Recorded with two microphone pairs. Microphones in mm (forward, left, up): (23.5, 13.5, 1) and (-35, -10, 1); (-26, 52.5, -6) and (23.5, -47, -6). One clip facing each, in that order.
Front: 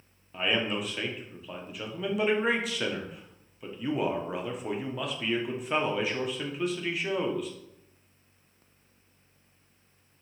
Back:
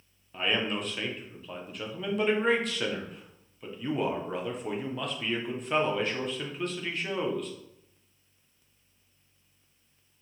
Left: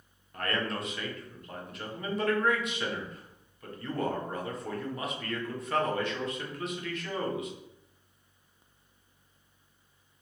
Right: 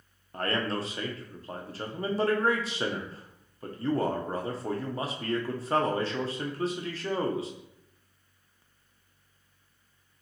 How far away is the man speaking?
About 0.7 m.